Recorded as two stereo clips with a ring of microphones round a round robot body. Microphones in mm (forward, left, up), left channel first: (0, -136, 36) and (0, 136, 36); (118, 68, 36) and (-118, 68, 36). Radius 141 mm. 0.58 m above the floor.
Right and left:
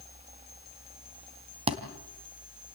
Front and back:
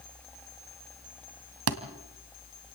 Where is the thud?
160° left, 2 m.